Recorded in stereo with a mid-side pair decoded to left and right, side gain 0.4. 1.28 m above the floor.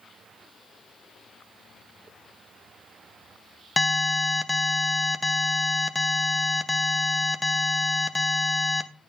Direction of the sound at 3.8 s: 20° left.